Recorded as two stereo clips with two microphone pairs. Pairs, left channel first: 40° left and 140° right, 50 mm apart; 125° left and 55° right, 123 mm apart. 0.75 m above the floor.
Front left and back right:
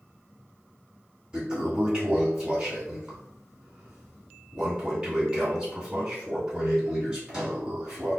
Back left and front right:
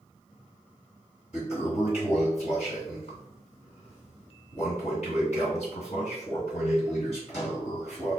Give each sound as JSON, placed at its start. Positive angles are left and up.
{"t": 1.3, "sound": "a toilet flushing", "azimuth_deg": 145, "distance_m": 1.8}